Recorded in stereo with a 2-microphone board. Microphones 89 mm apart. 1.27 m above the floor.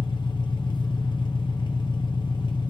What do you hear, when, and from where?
0.0 s an engine running: 60° left (ahead or behind), 0.7 m